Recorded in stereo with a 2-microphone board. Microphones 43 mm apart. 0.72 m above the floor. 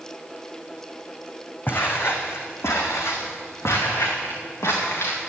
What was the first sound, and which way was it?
Footsteps, 50° left (ahead or behind).